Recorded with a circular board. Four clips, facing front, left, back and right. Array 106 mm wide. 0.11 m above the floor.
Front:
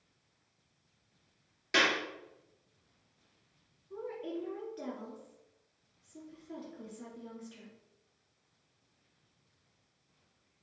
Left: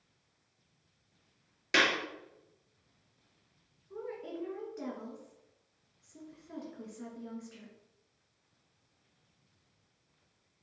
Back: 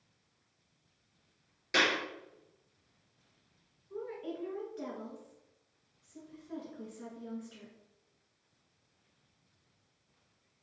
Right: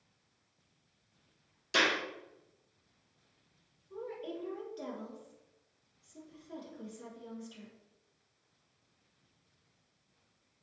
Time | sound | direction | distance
1.7 | a clap | 80° left | 1.7 m
3.9 | a woman speaking | 100° left | 1.5 m